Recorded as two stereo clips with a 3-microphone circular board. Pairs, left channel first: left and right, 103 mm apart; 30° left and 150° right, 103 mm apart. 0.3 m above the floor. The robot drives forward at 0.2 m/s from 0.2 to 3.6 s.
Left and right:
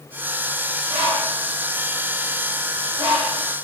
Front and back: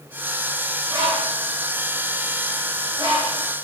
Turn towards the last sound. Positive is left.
turn(degrees=-115)